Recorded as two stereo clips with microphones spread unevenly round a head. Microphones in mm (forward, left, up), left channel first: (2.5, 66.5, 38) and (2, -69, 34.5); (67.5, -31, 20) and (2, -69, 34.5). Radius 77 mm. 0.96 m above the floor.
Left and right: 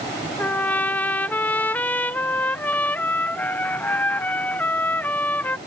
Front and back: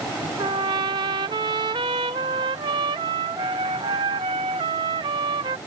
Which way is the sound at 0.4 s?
170° left.